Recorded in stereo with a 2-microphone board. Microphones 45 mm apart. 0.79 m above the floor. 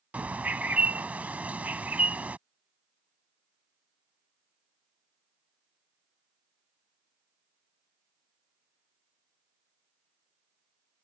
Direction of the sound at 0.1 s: 35° right (ahead or behind).